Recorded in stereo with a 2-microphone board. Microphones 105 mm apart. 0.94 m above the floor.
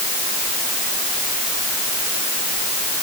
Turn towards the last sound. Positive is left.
No sound to turn to.